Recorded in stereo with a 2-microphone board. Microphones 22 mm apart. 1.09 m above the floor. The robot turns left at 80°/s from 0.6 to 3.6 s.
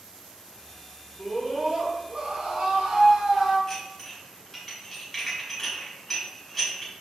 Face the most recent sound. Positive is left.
turn(degrees=10)  # may be behind; listen again after turning